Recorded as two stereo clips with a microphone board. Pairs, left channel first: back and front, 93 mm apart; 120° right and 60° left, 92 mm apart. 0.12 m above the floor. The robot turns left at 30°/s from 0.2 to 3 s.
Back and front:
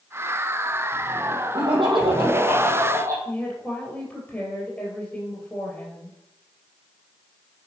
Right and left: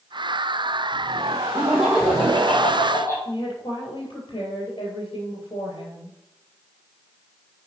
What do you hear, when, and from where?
1.5 s laughter: 15° right, 4.5 m; by 3.1 s 60° right, 4.5 m
3.2 s a woman speaking: 105° right, 3 m